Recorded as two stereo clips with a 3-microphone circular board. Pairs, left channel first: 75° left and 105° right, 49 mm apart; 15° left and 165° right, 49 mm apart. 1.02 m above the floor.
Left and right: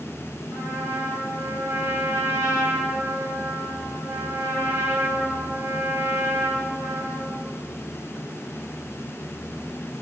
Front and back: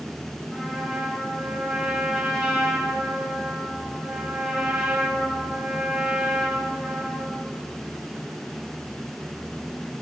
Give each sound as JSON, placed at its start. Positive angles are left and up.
{"t": 0.5, "sound": "a trumpet", "azimuth_deg": -90, "distance_m": 4.0}